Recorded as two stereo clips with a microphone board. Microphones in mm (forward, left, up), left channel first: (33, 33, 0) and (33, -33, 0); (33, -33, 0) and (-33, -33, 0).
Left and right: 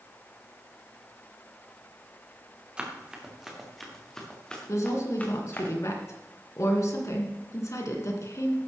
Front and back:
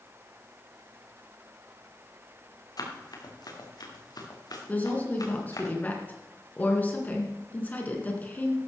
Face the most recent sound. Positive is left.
turn(degrees=60)